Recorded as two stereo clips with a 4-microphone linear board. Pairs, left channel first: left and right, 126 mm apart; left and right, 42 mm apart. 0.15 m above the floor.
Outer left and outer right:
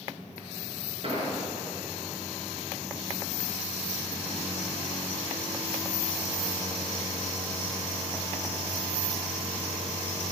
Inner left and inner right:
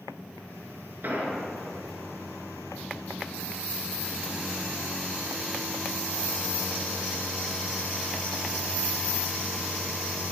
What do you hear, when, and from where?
1.0 s an explosion: 55° right (ahead or behind), 2 m